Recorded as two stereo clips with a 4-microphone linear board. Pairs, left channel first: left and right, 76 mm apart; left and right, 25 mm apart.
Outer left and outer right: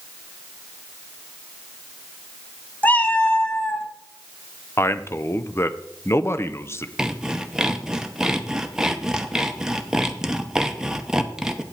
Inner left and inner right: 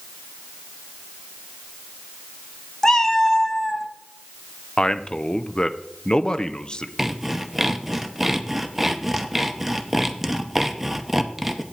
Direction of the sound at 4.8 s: 35° left (ahead or behind).